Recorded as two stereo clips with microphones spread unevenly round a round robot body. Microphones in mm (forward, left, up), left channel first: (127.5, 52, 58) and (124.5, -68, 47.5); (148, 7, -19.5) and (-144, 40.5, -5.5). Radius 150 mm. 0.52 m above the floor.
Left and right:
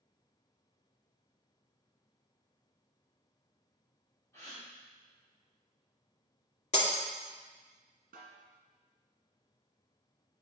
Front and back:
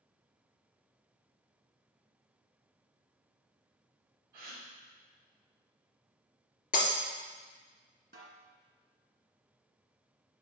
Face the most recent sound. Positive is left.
turn(degrees=-125)